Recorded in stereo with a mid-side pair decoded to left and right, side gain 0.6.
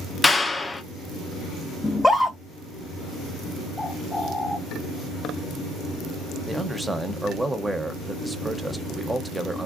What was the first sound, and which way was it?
A clap, 15° left.